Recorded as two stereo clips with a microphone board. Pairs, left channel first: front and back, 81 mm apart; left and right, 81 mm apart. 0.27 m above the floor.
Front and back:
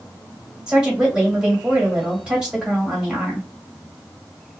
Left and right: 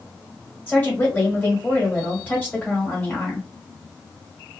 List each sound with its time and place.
0.7 s a woman speaking: 115° left, 1.5 m